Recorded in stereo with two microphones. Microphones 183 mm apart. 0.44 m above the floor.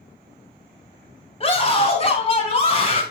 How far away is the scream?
About 2.5 m.